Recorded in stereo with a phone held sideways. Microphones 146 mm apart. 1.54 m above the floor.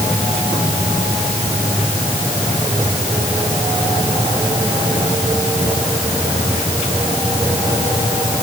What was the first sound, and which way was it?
Only background noise.